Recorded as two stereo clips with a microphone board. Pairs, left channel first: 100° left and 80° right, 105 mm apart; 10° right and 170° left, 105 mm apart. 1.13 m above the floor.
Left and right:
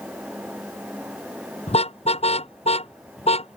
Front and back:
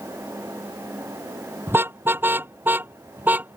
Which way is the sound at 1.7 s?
100° left.